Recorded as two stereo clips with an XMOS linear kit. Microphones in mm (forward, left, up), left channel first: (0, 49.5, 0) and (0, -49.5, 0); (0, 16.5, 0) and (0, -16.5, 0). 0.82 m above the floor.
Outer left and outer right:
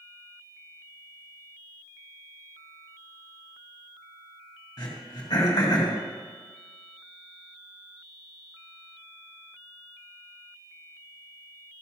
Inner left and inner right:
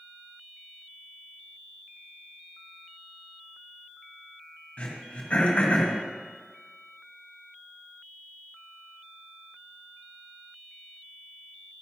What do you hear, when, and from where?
4.8 s throat clearing: 45° left (ahead or behind), 2 m